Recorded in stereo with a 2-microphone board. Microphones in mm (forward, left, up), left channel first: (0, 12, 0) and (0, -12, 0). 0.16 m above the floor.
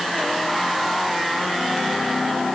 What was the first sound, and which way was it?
Only background noise.